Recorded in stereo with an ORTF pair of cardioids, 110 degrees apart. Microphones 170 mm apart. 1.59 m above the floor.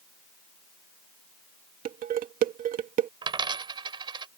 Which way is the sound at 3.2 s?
30° right.